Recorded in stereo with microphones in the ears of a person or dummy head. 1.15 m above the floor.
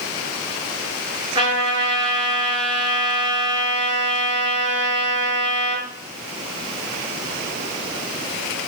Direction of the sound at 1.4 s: 20° right (ahead or behind).